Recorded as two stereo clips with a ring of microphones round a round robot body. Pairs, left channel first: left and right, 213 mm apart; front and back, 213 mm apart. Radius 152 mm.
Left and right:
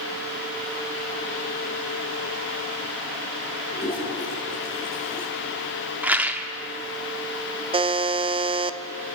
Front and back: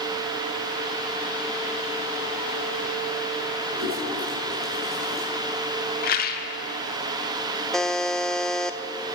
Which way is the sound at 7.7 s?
85° right.